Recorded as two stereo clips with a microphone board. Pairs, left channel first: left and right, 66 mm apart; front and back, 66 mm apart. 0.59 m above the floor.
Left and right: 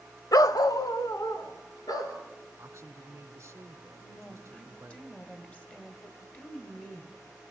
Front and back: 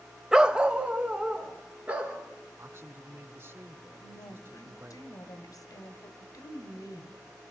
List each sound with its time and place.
0.3 s a dog barking: 100° left, 0.6 m; by 2.2 s 110° left, 3.5 m
2.6 s a man speaking: 140° right, 2 m
4.0 s a woman speaking: 20° left, 1.9 m